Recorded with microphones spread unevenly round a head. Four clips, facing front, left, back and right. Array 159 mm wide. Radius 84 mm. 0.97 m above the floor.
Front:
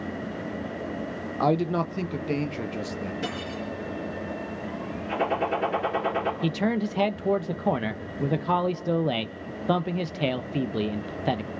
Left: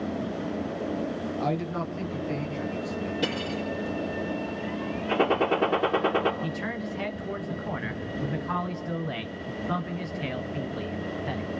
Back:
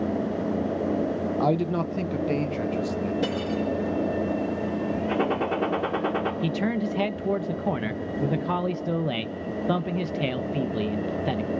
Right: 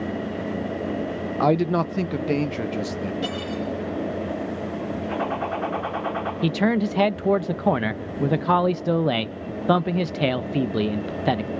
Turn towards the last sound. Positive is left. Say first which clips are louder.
# right 11 dB, even
turn(degrees=-95)